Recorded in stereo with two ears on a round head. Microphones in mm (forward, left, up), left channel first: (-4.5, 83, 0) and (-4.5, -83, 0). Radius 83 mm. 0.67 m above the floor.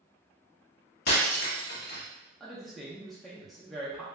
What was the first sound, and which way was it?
Breaking glass, 55° left (ahead or behind).